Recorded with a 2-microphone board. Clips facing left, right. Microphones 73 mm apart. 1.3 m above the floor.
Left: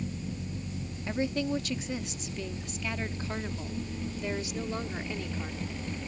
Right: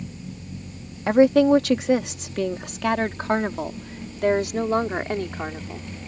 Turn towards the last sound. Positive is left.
turn(degrees=-55)  # may be behind; listen again after turning